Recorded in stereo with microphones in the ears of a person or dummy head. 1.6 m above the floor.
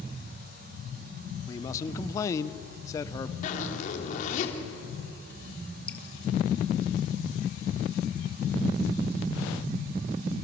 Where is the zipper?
45° left (ahead or behind), 3 m.